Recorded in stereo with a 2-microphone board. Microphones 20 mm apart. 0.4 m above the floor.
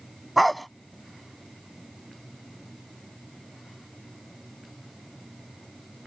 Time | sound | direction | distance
0.4 | a dog barking | 5° left (ahead or behind) | ?